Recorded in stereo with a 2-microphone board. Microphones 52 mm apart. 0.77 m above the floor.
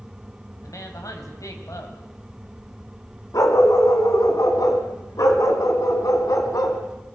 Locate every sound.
0.6 s a woman speaking: 80° left, 4 m
3.3 s a dog barking: 85° left, 2.5 m